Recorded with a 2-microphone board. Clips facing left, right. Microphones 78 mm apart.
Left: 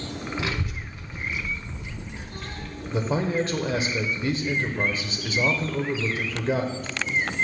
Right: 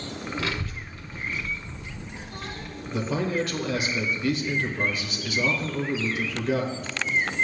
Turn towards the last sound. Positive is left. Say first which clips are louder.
# left 2 dB
turn(degrees=30)  # may be behind; listen again after turning